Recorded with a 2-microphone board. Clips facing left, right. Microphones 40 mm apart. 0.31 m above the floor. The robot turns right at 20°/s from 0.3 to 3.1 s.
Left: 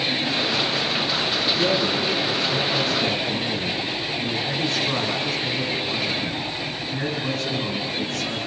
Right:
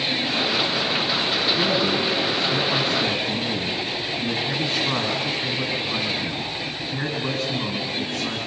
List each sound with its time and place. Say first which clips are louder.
1.6 s a man speaking: even; 60° right, 3.5 m; by 8.4 s 30° right, 3.5 m